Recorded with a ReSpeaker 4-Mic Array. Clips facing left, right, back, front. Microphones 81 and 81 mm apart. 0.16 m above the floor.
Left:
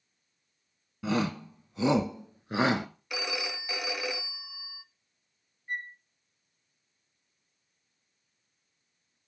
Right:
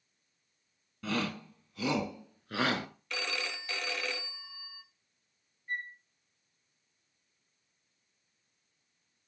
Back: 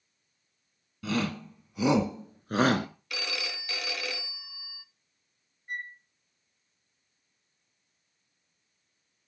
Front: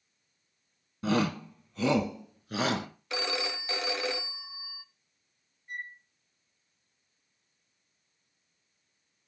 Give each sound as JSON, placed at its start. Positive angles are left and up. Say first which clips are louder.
{"t": 1.0, "sound": "a shout", "louder": "left 5 dB, front 3 dB", "azimuth_deg": 30, "distance_m": 1.2}
{"t": 3.1, "sound": "a phone ringing", "louder": "left 2 dB, front 7 dB", "azimuth_deg": 25, "distance_m": 0.7}
{"t": 5.7, "sound": "a flute", "louder": "left 2 dB, back 3 dB", "azimuth_deg": 155, "distance_m": 2.5}